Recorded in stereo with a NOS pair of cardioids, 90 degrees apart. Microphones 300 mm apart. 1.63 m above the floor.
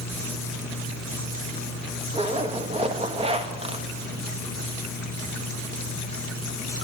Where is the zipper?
20° right, 0.8 m.